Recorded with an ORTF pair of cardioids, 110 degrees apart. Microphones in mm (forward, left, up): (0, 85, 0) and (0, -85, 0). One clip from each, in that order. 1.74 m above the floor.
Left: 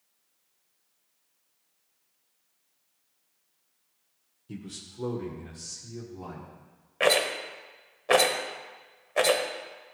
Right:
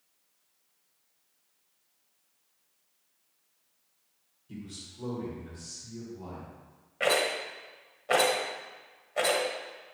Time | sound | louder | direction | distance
4.5 | a man speaking | left 2 dB | 50° left | 1.3 m
7.0 | a rattle | left 3 dB | 35° left | 1.1 m